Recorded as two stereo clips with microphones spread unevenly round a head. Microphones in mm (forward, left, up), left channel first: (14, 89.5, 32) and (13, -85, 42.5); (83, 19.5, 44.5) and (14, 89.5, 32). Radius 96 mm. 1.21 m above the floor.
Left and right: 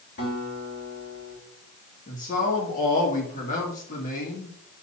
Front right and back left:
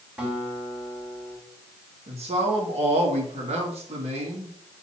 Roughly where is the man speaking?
Behind left.